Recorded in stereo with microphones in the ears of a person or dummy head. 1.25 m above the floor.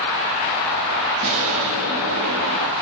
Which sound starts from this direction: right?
An explosion, at 1.2 s.